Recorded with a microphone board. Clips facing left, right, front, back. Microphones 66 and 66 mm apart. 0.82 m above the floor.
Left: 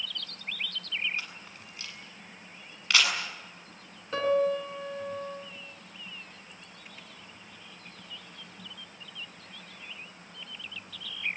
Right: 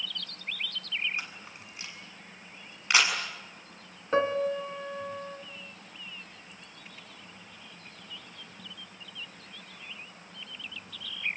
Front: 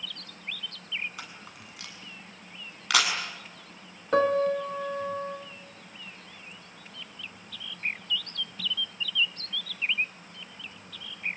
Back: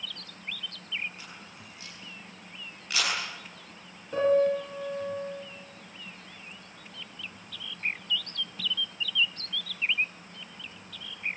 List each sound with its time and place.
1.2 s a camera shutter: 15° right, 7.5 m
4.1 s a piano: 25° right, 2.5 m